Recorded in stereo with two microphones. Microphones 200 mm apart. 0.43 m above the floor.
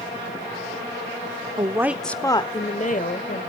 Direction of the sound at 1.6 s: 25° right (ahead or behind).